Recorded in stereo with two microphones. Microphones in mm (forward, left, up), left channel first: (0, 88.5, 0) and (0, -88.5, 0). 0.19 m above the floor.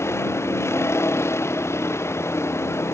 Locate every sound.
0.0 s a vehicle: 15° left (ahead or behind)